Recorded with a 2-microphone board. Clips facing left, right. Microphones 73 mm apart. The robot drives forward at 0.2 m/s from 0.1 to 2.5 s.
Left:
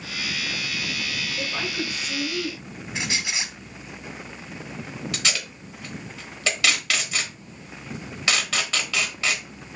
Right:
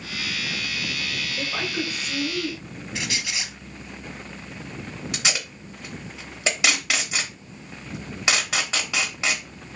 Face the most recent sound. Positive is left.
turn(degrees=-20)  # may be behind; listen again after turning